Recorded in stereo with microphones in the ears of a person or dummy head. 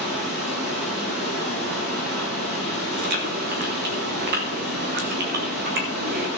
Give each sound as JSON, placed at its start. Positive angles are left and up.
{"t": 0.0, "sound": "running water", "side_deg": -60, "distance_m": 5.0}
{"t": 2.9, "sound": "chewing", "side_deg": -50, "distance_m": 1.4}